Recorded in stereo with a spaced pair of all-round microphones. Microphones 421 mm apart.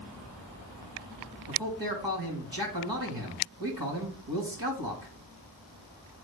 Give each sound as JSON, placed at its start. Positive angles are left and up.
{"t": 1.5, "sound": "a man speaking", "side_deg": -55, "distance_m": 2.0}